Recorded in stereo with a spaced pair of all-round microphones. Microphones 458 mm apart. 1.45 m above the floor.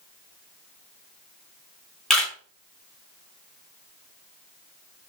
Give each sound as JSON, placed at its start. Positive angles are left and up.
{"t": 2.1, "sound": "a camera shutter", "side_deg": 0, "distance_m": 0.8}